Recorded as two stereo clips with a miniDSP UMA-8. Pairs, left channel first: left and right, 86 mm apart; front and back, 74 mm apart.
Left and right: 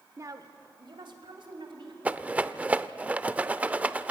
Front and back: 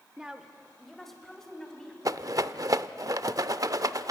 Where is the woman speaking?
110° right, 1.1 m; by 1.9 s 80° right, 3 m.